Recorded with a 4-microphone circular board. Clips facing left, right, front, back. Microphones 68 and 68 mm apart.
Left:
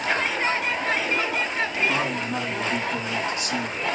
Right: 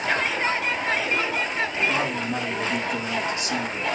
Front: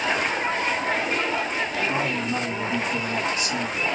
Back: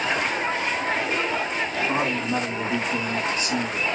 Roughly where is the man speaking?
Behind.